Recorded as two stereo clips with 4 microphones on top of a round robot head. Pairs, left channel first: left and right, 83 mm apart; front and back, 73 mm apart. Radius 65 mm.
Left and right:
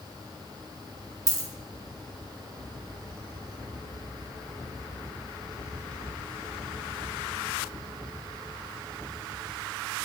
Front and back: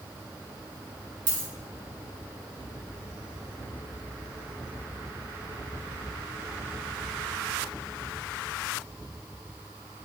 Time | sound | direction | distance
1.3 | a dropped coin | 135° right | 2.5 m